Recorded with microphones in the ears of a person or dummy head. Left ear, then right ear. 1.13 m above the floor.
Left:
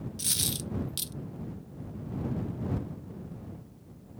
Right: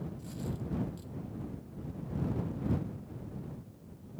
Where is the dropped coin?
45° left (ahead or behind).